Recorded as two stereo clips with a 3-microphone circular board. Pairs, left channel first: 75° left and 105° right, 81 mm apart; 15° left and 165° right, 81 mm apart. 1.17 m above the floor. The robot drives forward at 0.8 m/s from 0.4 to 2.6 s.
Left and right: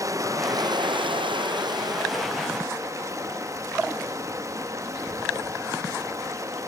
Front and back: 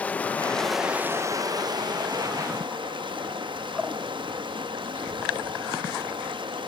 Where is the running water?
55° right, 0.8 m; by 6.7 s 155° right, 1.5 m.